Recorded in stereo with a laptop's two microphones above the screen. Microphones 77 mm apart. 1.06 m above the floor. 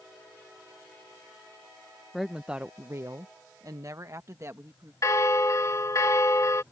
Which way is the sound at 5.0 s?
45° left (ahead or behind).